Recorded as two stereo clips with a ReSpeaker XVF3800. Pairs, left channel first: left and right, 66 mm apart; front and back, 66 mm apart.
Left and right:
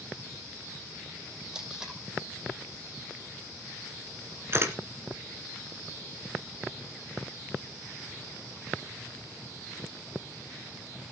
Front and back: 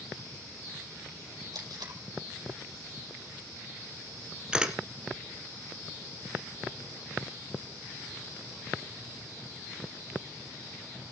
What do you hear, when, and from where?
1.5 s tape being pulled: 170° right, 5 m
4.5 s a camera shutter: 110° right, 1.6 m